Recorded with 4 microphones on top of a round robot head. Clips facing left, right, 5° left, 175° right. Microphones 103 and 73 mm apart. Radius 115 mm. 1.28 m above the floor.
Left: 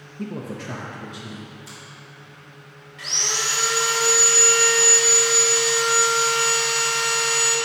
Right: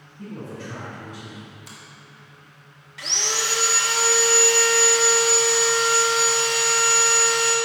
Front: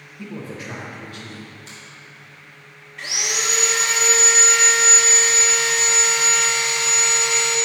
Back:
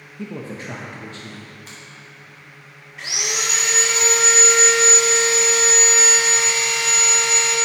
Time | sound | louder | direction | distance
0.2 | a man speaking | left 4 dB, back 2 dB | 120° left | 0.8 m
1.7 | a finger snap | left 2 dB, back 1 dB | 125° right | 1.5 m
3.0 | sawing | right 1 dB, even | 90° right | 0.5 m